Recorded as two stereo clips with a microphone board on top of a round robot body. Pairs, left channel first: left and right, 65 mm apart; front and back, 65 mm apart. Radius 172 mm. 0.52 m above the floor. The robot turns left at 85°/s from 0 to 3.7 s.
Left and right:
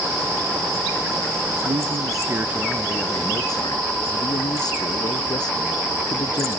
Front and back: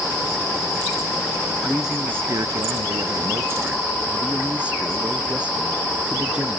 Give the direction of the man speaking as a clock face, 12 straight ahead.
3 o'clock.